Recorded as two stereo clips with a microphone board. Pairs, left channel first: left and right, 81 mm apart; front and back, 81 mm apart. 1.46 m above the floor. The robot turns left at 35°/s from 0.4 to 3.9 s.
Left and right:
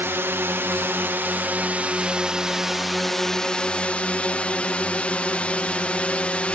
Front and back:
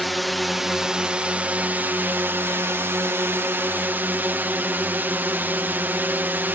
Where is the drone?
90° right; by 6.5 s 145° left.